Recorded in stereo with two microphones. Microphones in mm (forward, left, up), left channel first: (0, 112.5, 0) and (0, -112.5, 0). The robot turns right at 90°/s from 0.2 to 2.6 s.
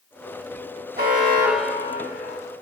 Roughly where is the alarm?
Ahead right.